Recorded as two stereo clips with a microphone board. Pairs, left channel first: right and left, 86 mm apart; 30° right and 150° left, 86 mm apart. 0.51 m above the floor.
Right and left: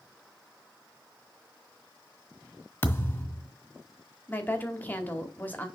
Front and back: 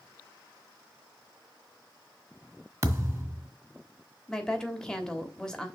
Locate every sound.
2.8 s a thud: 155° right, 1.6 m
4.3 s a woman speaking: 100° right, 1.1 m